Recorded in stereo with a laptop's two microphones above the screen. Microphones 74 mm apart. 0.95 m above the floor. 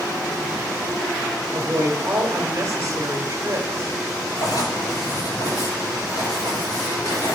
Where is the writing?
70° left (ahead or behind), 4.5 m.